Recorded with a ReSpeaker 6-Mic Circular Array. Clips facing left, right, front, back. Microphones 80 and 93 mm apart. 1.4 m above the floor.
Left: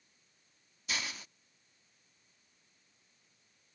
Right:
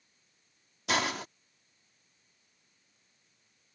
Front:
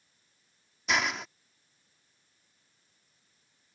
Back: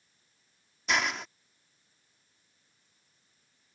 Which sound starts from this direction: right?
A hiss, at 0.9 s.